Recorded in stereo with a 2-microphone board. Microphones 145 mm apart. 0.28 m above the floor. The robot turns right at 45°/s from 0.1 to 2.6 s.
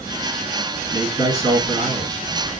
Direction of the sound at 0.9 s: 150° right.